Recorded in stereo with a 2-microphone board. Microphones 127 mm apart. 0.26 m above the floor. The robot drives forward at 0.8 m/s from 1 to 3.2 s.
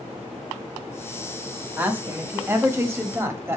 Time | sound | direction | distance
1.8 | a woman speaking | 15° right (ahead or behind) | 1.8 m